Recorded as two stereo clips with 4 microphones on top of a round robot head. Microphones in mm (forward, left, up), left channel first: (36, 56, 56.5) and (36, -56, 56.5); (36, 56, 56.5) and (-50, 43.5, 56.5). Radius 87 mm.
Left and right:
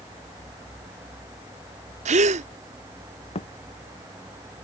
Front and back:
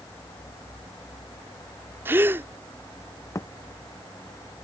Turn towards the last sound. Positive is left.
turn(degrees=60)